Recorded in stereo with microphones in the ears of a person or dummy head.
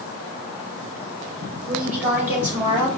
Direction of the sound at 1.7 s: 10° right (ahead or behind).